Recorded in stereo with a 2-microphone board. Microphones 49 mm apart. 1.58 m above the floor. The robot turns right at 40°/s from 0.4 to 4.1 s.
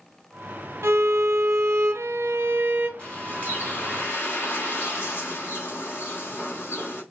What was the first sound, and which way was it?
A violin, 115° right.